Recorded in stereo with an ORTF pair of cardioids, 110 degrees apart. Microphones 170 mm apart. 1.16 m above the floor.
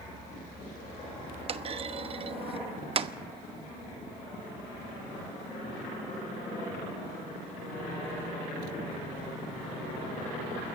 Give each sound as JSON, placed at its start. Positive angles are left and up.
{"t": 1.5, "sound": "a clunk", "azimuth_deg": -35, "distance_m": 1.0}